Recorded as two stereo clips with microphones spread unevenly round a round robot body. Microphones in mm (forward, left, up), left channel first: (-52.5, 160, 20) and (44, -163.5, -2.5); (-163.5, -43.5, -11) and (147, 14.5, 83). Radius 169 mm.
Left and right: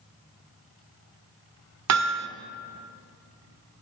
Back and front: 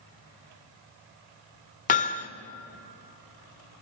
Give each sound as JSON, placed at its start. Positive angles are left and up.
{"t": 1.9, "sound": "hammering", "azimuth_deg": -110, "distance_m": 1.7}